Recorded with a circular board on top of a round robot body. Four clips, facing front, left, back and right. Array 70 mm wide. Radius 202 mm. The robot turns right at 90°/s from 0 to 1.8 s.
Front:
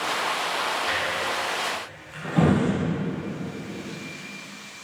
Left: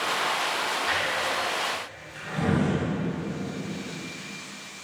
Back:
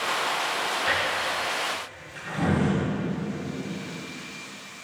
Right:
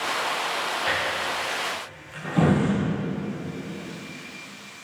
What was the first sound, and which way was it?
A drawer, 130° right.